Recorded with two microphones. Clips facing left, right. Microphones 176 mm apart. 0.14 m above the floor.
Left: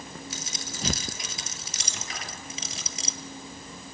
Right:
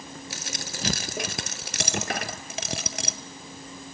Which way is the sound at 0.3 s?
70° right (ahead or behind).